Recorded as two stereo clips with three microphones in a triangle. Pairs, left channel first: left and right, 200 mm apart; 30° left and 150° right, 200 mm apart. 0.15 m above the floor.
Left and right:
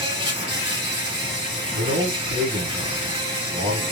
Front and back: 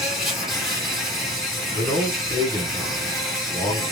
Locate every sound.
0.0 s an insect: 60° right, 2 m
1.7 s a man speaking: 70° right, 2.5 m